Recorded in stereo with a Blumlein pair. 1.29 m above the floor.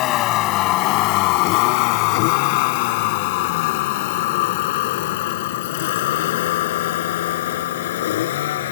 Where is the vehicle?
35° left; by 8.7 s 55° left.